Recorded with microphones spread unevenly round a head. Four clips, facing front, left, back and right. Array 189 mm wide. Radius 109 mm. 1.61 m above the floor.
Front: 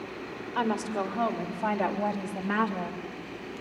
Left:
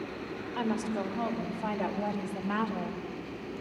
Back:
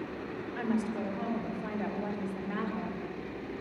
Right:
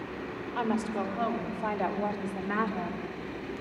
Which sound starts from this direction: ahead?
A woman speaking, at 0.6 s.